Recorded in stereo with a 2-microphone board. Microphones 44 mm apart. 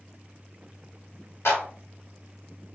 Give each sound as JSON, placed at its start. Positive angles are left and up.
{"t": 1.4, "sound": "a clap", "side_deg": 65, "distance_m": 1.4}